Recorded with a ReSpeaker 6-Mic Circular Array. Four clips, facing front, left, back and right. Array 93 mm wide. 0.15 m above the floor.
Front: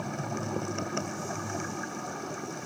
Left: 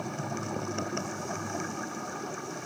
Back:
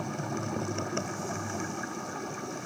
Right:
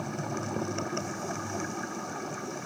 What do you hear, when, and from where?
Only background noise.